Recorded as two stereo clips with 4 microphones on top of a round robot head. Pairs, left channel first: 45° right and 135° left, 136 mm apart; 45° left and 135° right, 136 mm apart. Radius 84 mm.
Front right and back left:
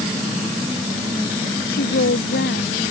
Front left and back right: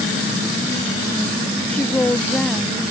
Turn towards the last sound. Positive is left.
turn(degrees=-40)